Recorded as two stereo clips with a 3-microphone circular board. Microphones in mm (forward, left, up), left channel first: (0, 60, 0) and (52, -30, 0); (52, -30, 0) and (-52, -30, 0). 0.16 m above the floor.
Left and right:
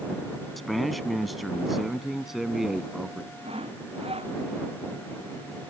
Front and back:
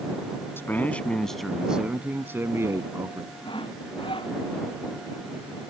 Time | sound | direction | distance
0.6 | a man speaking | 35° left | ?
3.4 | sawing | 35° right | ?